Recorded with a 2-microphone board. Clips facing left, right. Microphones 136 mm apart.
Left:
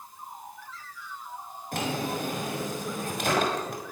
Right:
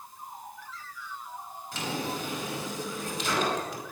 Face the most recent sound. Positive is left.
turn(degrees=55)  # may be behind; listen again after turning